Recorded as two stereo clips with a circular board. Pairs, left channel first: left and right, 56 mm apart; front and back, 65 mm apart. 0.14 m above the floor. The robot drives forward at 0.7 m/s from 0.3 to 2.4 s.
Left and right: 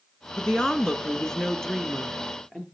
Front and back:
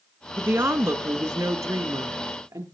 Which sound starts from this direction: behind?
A woman speaking, at 0.4 s.